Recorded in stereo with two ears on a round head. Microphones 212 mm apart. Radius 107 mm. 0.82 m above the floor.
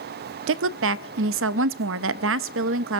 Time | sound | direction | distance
0.5 | a woman speaking | 55° right (ahead or behind) | 0.6 m